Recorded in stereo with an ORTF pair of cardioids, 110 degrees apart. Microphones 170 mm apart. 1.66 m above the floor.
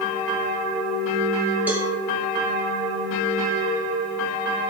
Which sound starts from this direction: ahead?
A cowbell, at 1.7 s.